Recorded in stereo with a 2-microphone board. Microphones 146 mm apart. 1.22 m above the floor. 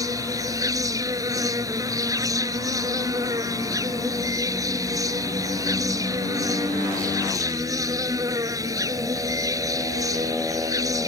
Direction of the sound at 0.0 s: 25° right (ahead or behind).